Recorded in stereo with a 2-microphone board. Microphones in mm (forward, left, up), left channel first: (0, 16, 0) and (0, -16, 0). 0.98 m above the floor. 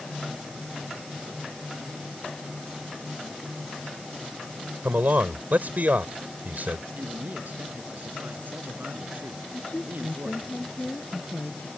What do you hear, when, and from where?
4.8 s a man speaking: 60° right (ahead or behind)
7.0 s a man speaking: 65° right (ahead or behind)
9.5 s a woman speaking: 50° left (ahead or behind)